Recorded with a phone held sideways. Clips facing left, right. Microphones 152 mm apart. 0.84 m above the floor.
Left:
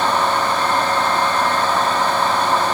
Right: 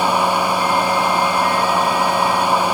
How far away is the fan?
About 0.8 m.